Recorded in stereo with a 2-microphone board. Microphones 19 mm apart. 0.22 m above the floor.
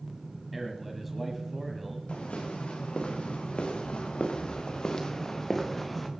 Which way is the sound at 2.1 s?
90° left.